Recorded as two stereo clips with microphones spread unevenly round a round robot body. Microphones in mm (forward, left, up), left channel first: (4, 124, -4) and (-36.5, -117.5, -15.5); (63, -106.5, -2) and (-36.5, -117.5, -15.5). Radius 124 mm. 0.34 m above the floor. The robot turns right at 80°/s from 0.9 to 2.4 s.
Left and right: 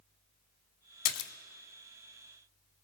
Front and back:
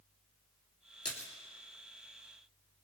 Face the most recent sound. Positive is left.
turn(degrees=-175)